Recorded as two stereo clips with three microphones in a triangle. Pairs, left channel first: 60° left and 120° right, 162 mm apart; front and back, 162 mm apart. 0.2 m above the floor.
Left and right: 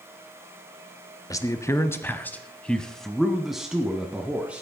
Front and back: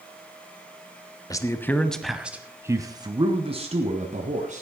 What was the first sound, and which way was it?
A man speaking, 25° left.